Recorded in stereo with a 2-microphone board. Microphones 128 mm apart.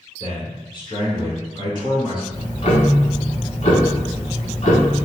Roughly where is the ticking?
Left.